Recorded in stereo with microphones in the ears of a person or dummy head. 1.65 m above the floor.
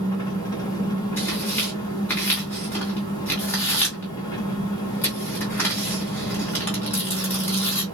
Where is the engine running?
15° left (ahead or behind), 1.3 m.